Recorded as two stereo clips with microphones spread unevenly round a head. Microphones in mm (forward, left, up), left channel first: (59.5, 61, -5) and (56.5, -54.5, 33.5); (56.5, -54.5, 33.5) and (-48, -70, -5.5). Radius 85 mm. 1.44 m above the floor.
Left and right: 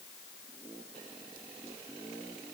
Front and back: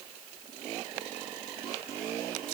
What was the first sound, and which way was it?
Only background noise.